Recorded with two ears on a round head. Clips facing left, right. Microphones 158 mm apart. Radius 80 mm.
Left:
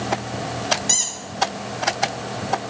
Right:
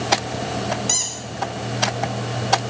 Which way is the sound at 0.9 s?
5° left (ahead or behind).